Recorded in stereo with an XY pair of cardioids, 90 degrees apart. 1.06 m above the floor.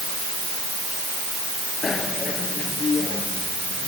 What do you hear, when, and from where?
1.8 s a bicycle bell: 40° left